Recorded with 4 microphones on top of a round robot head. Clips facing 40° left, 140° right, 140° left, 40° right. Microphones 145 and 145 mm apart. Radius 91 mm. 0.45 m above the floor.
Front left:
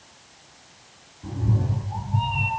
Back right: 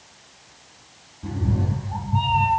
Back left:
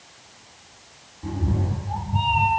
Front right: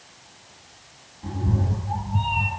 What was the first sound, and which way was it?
A cat meowing, 145° right.